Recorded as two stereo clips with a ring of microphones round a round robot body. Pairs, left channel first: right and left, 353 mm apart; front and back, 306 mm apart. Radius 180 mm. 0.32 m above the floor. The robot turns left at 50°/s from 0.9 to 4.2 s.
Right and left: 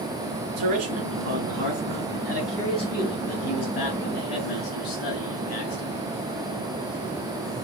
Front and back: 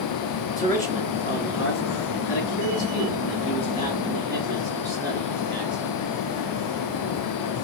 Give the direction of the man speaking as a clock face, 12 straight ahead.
9 o'clock.